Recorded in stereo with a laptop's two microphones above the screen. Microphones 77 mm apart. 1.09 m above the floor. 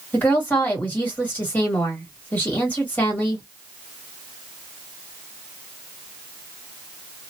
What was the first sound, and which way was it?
A woman speaking, 20° left (ahead or behind).